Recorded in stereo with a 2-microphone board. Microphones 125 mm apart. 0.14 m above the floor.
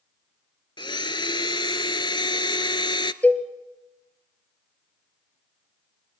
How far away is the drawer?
I don't hear a drawer.